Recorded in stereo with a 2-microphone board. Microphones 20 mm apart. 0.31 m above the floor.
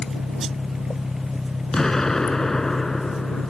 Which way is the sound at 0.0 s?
10° left (ahead or behind).